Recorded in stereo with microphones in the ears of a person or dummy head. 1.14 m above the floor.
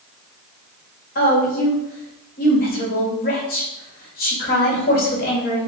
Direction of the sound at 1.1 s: 50° left (ahead or behind).